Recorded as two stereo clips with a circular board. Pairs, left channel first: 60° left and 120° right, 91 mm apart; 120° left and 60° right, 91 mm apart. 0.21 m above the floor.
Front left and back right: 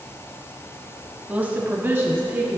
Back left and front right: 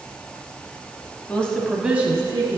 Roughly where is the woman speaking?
Behind.